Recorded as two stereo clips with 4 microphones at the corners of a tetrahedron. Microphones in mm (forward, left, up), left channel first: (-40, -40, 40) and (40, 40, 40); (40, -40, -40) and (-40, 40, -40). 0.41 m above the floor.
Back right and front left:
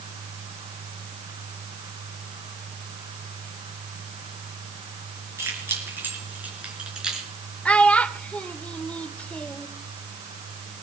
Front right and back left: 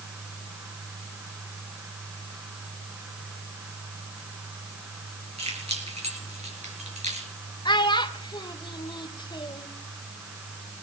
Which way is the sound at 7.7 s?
60° right.